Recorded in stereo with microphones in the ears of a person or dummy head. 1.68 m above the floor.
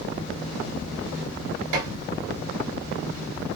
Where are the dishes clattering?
65° right (ahead or behind), 2 m.